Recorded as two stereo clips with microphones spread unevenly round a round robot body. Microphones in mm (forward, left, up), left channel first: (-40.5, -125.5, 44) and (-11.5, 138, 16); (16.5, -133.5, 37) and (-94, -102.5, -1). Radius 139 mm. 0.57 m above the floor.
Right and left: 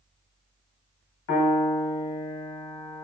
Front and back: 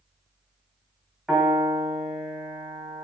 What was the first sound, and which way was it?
A piano, 125° right.